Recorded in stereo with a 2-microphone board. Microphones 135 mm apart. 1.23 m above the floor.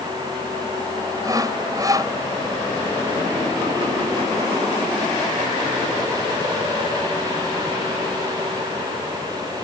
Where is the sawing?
25° right (ahead or behind).